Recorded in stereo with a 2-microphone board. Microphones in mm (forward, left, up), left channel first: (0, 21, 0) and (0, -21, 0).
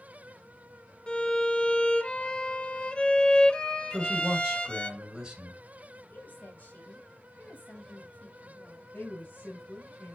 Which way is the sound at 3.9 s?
15° right (ahead or behind).